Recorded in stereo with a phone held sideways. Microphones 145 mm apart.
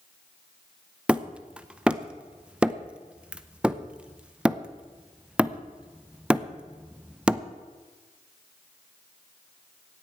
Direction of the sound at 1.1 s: 5° right (ahead or behind).